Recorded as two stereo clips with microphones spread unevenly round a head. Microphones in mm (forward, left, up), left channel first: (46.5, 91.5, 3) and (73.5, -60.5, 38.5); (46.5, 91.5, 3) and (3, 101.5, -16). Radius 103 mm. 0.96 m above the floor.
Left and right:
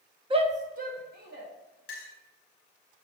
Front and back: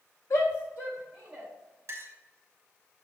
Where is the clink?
150° left, 0.8 m.